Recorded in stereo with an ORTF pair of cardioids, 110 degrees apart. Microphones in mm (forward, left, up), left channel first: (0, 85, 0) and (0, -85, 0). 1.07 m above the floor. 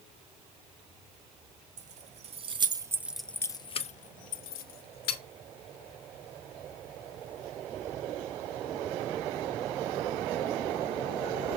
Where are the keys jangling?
50° right, 1.2 m; by 5.2 s 75° left, 1.4 m.